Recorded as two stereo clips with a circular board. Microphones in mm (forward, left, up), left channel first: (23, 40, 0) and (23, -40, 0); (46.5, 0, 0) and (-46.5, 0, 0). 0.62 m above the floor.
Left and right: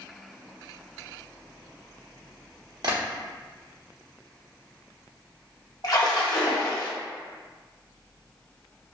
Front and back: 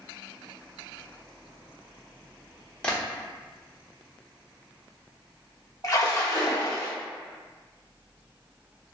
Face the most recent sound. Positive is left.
turn(degrees=50)